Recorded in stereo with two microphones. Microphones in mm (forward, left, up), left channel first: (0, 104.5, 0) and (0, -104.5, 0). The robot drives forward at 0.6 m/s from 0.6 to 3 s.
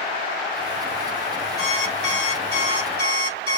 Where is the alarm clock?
30° right (ahead or behind), 4 m; by 3.6 s 25° right (ahead or behind), 4.5 m.